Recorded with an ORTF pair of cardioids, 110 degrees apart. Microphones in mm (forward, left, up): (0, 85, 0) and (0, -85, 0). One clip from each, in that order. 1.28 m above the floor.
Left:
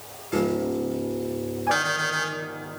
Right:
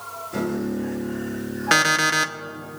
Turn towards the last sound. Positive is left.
turn(degrees=-60)